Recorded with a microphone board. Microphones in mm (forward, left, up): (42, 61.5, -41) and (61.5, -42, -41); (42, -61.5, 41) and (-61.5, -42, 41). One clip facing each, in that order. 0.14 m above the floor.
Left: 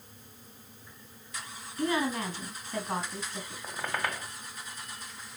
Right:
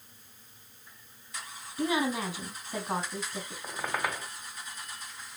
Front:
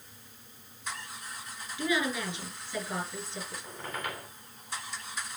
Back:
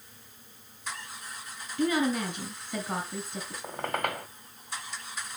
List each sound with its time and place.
1.8 s a woman speaking: 160° right, 2.5 m
3.6 s a squeak: 160° right, 2 m